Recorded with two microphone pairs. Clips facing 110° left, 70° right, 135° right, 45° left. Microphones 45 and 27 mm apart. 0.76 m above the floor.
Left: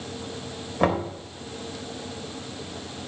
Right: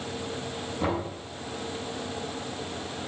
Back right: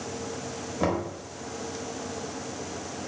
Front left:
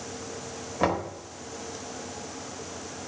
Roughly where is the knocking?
Behind left.